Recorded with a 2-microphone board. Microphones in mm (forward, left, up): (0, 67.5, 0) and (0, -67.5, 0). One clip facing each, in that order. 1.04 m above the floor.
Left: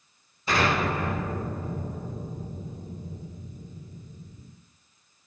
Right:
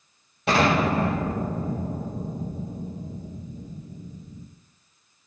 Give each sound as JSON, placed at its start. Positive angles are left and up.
{"t": 0.5, "sound": "an explosion", "side_deg": -80, "distance_m": 6.5}